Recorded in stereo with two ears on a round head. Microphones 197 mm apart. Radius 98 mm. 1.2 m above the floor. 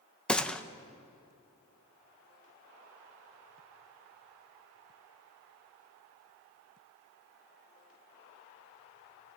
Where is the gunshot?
5° left (ahead or behind), 0.7 m.